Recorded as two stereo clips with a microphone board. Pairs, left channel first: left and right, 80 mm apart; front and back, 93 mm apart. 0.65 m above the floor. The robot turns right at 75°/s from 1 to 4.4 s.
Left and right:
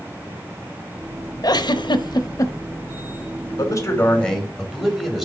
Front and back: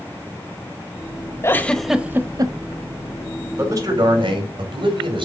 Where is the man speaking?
115° left, 2.5 m; by 5.3 s straight behind, 2.5 m.